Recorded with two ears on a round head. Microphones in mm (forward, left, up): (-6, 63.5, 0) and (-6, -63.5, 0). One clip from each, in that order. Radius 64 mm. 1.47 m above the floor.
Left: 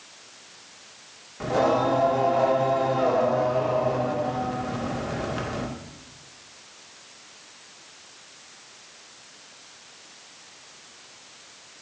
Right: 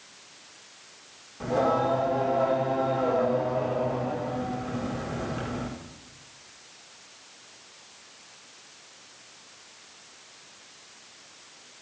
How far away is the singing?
About 1.8 m.